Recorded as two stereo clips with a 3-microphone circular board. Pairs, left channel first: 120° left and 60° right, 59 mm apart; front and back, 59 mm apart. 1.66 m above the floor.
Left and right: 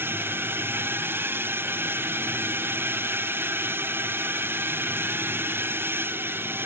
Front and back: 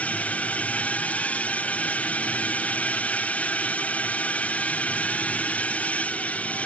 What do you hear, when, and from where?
0.0 s a drone: 50° right